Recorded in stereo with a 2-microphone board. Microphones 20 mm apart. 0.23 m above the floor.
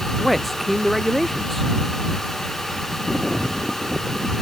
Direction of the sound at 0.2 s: Centre (ahead or behind).